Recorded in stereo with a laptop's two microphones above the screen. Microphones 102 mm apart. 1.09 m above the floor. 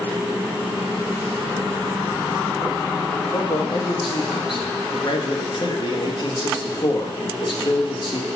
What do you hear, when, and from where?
3.3 s a man speaking: 55° left (ahead or behind), 1.2 m